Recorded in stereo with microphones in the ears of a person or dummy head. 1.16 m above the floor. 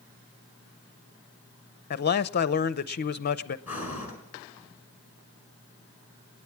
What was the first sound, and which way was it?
A man speaking, 45° left (ahead or behind).